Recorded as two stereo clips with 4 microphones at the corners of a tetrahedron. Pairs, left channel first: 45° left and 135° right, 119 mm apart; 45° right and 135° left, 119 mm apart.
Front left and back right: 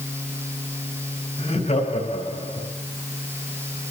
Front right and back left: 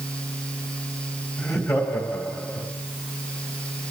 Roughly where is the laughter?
Ahead.